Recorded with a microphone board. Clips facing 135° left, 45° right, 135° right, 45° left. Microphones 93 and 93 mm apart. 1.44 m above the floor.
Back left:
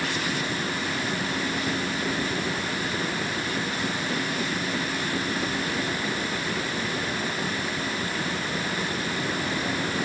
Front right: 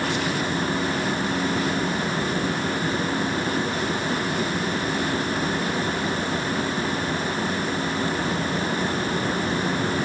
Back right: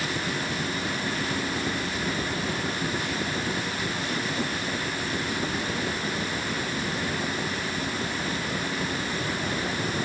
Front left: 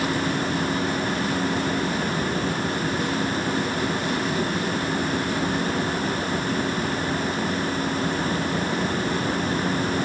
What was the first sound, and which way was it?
Only background noise.